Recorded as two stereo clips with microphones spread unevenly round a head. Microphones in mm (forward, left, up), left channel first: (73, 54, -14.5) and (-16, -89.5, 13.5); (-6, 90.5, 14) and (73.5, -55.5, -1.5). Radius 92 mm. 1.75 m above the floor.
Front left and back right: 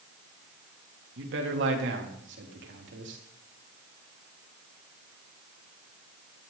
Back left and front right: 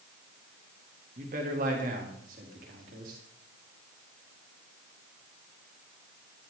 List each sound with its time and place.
1.2 s a man speaking: 110° right, 3.5 m